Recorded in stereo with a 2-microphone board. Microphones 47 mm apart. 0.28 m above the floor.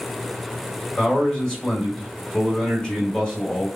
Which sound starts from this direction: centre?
A man speaking, at 1.0 s.